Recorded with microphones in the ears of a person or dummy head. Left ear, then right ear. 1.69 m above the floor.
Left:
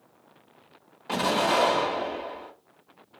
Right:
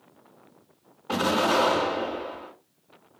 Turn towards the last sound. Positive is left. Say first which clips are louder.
# right 1 dB
turn(degrees=35)  # may be behind; listen again after turning